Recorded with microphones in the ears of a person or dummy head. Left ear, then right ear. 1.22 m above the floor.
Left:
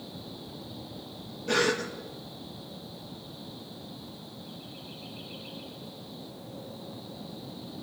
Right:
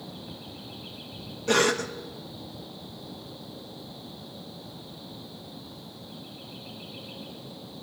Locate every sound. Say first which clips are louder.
1.5 s a cough: right 3 dB; 30° right (ahead or behind), 1.1 m